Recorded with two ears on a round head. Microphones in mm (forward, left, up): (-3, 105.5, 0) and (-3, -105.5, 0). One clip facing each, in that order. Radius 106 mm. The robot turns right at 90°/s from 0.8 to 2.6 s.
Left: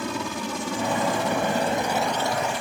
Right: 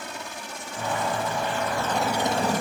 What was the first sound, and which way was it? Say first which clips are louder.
A helicopter: left 9 dB; 65° left (ahead or behind).